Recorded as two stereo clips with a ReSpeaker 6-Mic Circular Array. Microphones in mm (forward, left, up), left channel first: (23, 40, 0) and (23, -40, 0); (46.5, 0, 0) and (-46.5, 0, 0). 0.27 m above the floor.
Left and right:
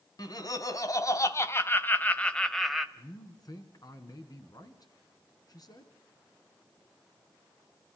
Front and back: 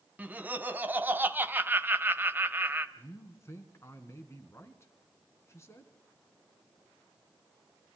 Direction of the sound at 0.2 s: 110° left.